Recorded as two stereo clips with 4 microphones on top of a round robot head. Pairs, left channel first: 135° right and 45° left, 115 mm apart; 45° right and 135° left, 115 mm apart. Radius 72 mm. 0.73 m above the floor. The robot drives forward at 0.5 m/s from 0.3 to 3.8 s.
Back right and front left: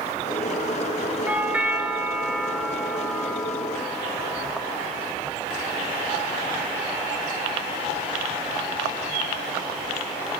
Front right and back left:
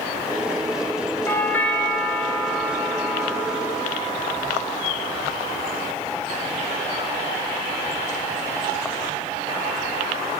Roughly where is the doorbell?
Ahead.